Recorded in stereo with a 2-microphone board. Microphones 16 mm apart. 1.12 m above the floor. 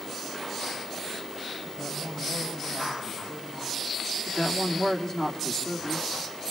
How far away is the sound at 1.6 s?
About 9.5 m.